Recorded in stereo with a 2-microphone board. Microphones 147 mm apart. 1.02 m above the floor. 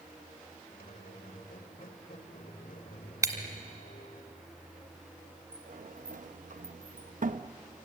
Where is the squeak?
70° left (ahead or behind), 1.8 m.